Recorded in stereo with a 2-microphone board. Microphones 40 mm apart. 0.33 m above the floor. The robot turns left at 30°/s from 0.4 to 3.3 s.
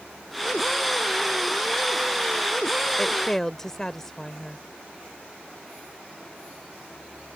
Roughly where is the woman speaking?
Centre.